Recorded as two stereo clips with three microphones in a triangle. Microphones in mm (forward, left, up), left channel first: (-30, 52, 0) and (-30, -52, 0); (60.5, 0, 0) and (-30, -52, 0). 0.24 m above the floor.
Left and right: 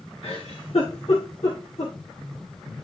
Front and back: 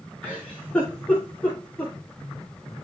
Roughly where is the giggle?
Left.